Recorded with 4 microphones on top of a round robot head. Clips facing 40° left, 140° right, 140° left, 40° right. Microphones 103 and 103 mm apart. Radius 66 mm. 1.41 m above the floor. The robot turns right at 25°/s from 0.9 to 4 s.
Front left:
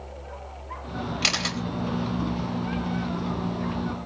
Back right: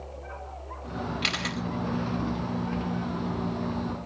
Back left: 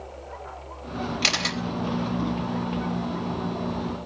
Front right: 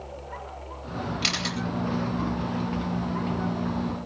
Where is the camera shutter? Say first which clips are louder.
Front left 2 dB, back left 2 dB; 95° left, 3.5 m; by 1.6 s 105° left, 3.5 m.